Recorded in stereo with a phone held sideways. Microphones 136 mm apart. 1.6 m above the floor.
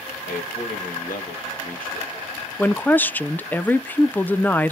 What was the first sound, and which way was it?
A man speaking, 80° left.